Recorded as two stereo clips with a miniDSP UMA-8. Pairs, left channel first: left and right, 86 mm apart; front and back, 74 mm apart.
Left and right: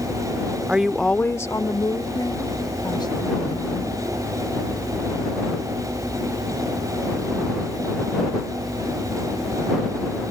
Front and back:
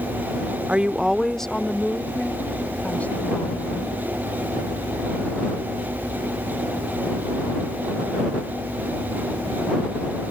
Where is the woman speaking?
140° right; by 3.9 s 65° left.